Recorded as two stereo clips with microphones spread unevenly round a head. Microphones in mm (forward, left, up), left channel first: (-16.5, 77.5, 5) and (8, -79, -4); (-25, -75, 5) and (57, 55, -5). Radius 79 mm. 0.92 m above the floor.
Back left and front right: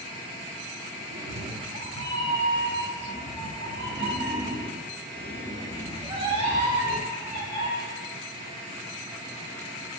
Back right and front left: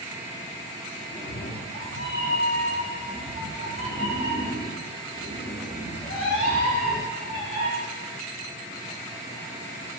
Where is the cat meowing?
85° right, 1.2 m; by 7.7 s 140° right, 5 m.